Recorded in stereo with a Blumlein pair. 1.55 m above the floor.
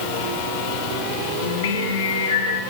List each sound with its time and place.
1.4 s singing: 60° left, 1.4 m